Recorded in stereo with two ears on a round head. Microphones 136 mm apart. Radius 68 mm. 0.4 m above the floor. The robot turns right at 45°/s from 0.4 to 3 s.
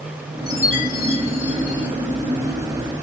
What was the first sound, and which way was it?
A chime, straight ahead.